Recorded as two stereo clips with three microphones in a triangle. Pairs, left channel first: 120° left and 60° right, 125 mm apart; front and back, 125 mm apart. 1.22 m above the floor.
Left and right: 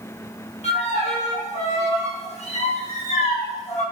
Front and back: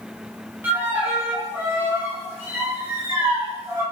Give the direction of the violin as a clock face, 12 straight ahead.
8 o'clock.